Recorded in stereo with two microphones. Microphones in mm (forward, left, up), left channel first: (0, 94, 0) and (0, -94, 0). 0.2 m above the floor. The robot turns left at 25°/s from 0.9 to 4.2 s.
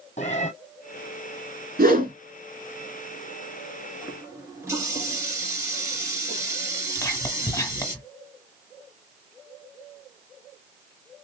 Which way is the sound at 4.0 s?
20° right (ahead or behind).